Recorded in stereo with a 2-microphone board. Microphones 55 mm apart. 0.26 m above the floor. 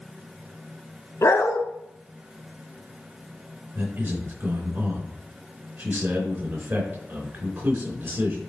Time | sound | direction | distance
1.2 | a dog barking | 65° left (ahead or behind) | 0.8 m
3.8 | a man speaking | 45° right (ahead or behind) | 3 m